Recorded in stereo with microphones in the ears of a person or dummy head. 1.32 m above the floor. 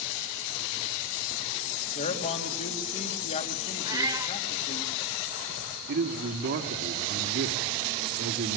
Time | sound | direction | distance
1.9 | a man speaking | 40° left (ahead or behind) | 3.5 m
3.9 | a cat meowing | 20° right (ahead or behind) | 2.5 m
5.9 | a man speaking | 55° right (ahead or behind) | 2.5 m